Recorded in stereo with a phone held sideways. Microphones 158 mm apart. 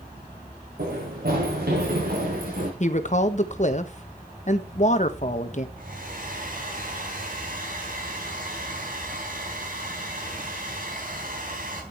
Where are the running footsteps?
80° right, 6 m; by 2.7 s 70° right (ahead or behind), 7 m.